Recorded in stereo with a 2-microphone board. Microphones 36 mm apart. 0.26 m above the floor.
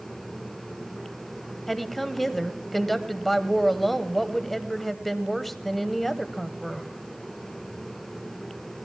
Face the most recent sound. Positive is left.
turn(degrees=5)  # may be behind; listen again after turning